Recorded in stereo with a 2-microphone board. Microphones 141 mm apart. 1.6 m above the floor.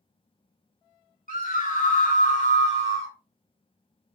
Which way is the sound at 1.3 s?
75° left (ahead or behind).